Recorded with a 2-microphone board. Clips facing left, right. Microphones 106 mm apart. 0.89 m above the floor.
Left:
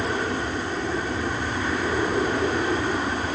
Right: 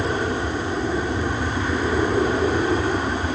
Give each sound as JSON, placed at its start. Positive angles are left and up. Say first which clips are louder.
{"t": 0.0, "sound": "an aircraft", "louder": "right 3 dB", "side_deg": -15}